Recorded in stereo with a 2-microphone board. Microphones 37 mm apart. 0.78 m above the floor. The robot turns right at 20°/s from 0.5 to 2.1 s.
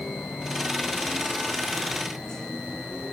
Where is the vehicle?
55° left (ahead or behind); by 3.1 s 10° left (ahead or behind).